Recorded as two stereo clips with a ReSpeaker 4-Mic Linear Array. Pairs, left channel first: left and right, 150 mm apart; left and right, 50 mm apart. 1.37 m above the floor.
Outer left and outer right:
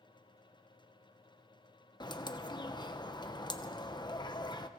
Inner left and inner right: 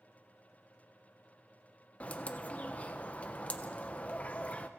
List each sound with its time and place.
2.0 s a bird: 30° left (ahead or behind), 1.0 m